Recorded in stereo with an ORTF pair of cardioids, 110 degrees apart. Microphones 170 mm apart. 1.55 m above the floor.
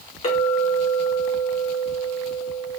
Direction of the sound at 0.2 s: 45° left.